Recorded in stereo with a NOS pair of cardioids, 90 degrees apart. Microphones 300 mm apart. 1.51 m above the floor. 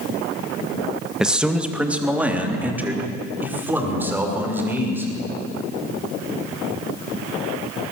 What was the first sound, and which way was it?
A man speaking, straight ahead.